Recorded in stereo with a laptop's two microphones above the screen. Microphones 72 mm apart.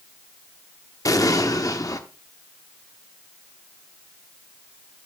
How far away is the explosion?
About 0.9 m.